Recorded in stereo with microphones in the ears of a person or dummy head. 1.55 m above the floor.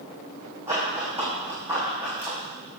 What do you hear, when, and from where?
0.7 s running footsteps: 20° right (ahead or behind), 5 m; by 2.4 s 10° right (ahead or behind), 5.5 m